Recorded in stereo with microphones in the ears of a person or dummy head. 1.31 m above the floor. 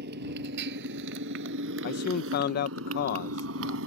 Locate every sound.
0.0 s a motorcycle: 55° right (ahead or behind); by 3.9 s 70° right (ahead or behind)
1.8 s a man speaking: 50° left (ahead or behind)